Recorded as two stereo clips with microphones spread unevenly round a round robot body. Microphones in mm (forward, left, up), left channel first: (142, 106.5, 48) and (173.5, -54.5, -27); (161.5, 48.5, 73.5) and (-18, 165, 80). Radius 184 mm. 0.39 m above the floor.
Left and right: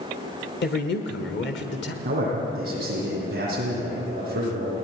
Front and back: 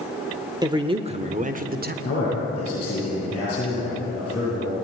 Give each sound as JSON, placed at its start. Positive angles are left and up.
{"t": 0.6, "sound": "a man speaking", "azimuth_deg": 80, "distance_m": 1.3}
{"t": 2.0, "sound": "a man speaking", "azimuth_deg": -105, "distance_m": 10.0}